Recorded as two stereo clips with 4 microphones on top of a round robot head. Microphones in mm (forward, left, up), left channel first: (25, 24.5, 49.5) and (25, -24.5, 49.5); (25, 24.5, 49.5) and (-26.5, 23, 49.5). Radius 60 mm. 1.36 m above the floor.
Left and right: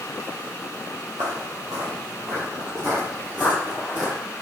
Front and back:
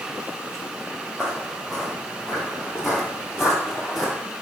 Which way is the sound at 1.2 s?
100° right.